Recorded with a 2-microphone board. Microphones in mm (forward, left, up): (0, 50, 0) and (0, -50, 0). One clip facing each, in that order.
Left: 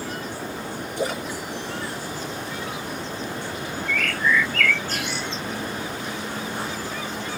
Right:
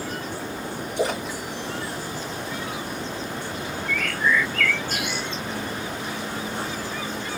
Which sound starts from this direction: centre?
A bird, at 3.9 s.